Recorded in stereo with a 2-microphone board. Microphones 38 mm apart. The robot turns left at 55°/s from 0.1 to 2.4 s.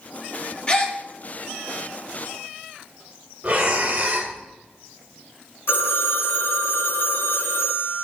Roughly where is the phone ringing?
Left.